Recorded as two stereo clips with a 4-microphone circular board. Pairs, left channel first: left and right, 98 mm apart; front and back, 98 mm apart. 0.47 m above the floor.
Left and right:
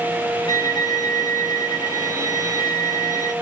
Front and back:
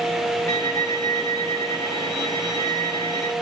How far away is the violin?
About 3 m.